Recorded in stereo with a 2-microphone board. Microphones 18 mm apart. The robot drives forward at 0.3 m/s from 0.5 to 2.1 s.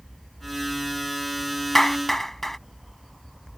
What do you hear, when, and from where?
1.8 s a clap: 15° left (ahead or behind)